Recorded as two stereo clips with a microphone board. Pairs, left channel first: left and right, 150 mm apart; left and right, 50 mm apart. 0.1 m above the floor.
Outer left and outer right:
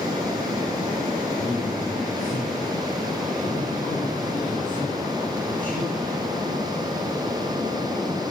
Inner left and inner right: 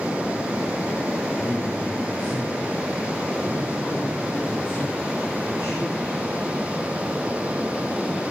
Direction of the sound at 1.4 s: 10° left (ahead or behind).